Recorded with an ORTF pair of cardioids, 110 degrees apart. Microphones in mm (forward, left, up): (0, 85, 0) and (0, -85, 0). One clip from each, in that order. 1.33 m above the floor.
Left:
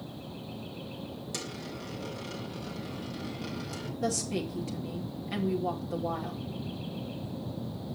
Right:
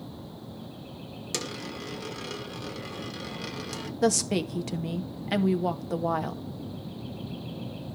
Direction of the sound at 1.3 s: 50° right.